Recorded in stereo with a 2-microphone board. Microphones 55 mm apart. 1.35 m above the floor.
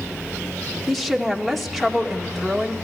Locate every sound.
0.9 s a woman speaking: centre (ahead or behind), 2 m